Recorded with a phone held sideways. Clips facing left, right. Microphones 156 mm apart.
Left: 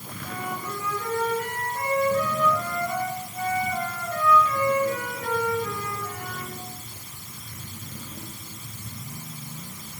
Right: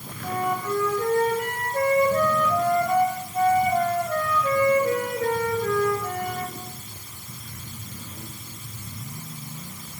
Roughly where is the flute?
Right.